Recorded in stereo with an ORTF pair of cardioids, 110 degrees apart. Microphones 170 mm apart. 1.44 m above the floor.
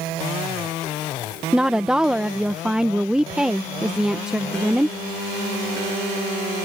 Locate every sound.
1.5 s a woman speaking: 5° right